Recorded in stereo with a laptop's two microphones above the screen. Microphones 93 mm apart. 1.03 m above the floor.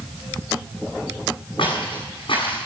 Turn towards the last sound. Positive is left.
turn(degrees=70)  # may be behind; listen again after turning